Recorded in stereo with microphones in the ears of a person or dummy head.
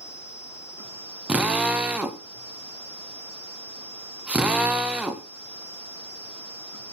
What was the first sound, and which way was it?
A drill, 5° right (ahead or behind).